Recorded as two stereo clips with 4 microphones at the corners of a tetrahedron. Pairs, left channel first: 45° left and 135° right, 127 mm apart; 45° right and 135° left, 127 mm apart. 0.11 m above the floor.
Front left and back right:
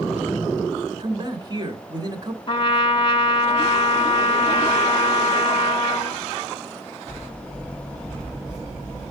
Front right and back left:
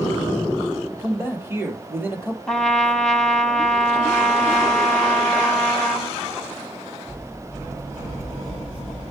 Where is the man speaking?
165° right, 2 m.